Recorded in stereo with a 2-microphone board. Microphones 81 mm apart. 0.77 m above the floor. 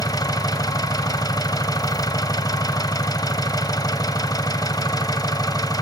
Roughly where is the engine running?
Left.